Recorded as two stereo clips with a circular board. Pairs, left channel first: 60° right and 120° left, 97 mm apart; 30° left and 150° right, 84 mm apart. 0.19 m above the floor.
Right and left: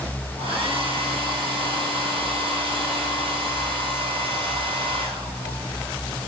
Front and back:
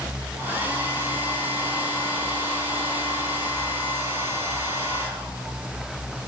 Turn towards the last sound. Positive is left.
turn(degrees=145)